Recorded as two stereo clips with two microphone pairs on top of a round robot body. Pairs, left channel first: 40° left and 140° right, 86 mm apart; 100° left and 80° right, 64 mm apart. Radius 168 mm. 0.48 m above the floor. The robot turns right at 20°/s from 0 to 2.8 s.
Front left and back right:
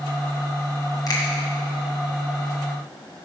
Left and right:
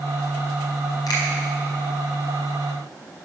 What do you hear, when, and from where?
1.1 s a finger snap: 80° left, 2.5 m; by 1.2 s 85° left, 2.5 m